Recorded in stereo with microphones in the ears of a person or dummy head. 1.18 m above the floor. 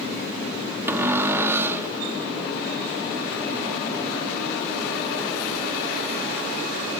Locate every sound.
0.9 s a cupboard door: 15° right (ahead or behind), 0.8 m